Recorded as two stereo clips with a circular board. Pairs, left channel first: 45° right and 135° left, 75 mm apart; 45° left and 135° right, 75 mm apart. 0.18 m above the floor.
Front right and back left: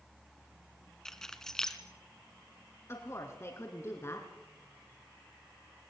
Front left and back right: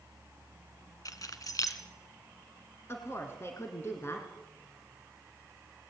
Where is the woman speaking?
5° right, 2.5 m.